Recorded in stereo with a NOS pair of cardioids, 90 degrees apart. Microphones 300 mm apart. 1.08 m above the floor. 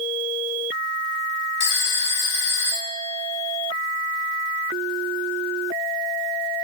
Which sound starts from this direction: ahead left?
A phone ringing, at 1.6 s.